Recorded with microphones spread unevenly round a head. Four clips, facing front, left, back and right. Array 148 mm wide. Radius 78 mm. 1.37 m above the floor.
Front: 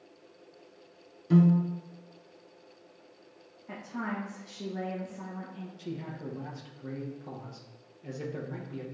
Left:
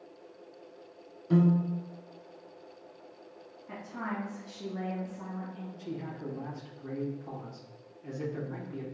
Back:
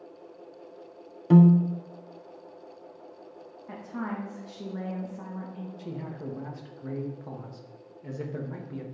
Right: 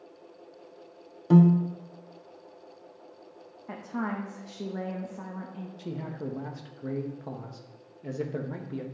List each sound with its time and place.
1.3 s a piano: 145° right, 0.6 m
3.7 s a woman speaking: 80° right, 1.2 m
5.8 s a man speaking: 90° right, 1.3 m